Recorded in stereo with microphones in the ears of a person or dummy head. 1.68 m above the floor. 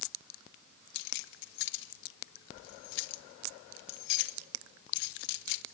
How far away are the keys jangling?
About 1.1 m.